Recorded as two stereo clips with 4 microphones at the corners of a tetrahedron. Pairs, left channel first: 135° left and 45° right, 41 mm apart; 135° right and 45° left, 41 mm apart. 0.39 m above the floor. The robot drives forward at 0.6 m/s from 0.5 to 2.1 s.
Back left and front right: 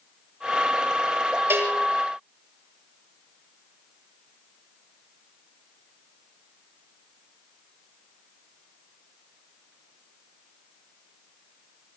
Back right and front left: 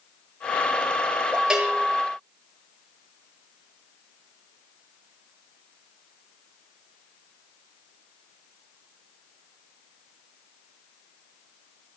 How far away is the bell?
About 6 m.